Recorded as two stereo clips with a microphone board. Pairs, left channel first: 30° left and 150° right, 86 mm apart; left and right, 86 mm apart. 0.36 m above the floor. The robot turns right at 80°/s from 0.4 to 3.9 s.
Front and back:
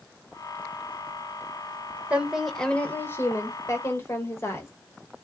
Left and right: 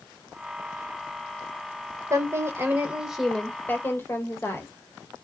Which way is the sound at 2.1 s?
90° right.